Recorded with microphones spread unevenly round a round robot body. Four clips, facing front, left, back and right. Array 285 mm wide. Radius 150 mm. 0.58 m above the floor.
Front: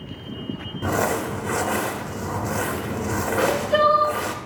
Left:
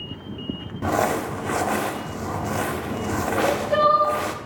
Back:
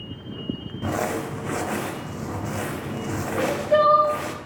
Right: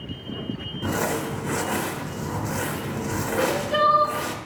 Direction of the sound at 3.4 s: 90° left.